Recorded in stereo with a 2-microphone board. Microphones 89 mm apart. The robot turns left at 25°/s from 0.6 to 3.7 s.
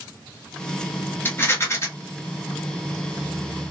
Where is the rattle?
25° left (ahead or behind), 1.0 m; by 1.9 s 30° left (ahead or behind), 1.0 m.